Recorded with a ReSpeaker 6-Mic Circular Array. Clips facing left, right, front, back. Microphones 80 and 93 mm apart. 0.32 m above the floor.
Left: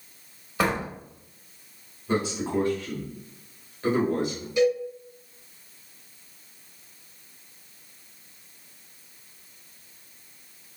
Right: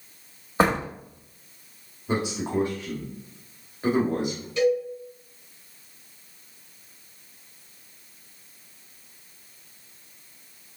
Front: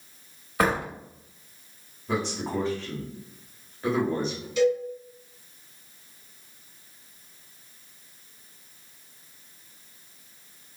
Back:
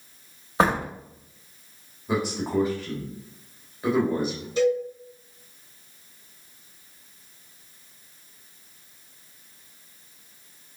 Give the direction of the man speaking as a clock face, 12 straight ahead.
4 o'clock.